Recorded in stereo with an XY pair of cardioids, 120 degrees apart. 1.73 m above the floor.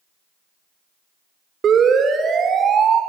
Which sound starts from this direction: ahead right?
A siren, at 1.6 s.